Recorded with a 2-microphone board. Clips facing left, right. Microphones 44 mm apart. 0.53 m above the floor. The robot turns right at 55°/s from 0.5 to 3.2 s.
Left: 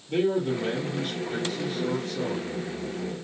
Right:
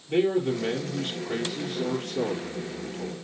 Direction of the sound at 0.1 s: 150° right.